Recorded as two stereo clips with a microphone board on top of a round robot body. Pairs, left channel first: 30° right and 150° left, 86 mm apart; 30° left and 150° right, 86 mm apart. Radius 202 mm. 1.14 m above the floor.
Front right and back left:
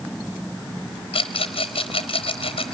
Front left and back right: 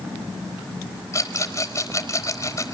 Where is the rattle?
20° right, 0.6 m.